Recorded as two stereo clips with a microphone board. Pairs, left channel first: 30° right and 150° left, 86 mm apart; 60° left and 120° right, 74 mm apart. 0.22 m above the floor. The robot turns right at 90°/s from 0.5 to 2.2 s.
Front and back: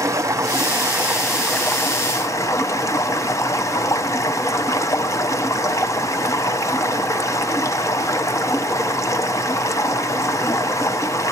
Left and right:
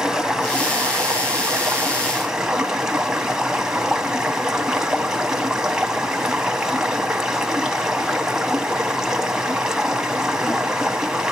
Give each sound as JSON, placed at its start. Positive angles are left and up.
{"t": 0.0, "sound": "running water", "azimuth_deg": 160, "distance_m": 0.9}